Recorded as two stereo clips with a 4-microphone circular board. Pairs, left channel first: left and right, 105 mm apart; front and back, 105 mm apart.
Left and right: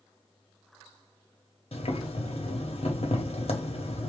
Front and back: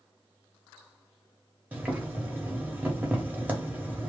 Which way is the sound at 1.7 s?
105° left.